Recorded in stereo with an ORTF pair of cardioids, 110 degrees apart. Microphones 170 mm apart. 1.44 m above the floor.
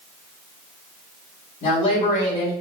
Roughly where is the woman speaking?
Ahead left.